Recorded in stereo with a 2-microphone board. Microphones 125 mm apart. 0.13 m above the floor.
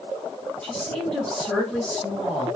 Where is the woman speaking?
5° left (ahead or behind), 2.5 m.